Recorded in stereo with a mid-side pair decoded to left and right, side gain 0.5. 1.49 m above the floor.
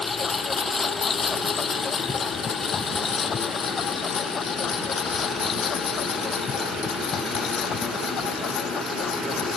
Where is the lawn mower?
25° left; by 9.6 s 55° left.